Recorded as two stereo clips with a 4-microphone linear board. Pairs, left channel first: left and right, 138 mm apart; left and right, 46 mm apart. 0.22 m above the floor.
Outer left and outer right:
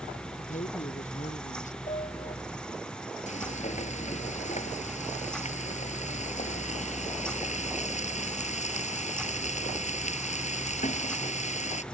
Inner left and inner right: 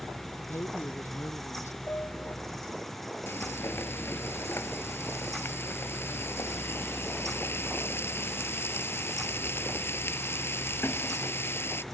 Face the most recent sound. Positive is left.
turn(degrees=60)  # may be behind; listen again after turning